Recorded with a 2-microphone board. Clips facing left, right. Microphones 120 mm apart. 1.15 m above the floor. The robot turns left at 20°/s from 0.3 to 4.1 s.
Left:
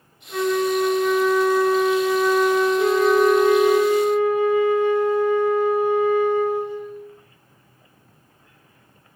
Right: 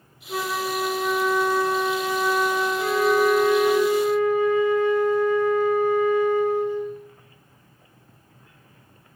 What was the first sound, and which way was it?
A flute, 130° right.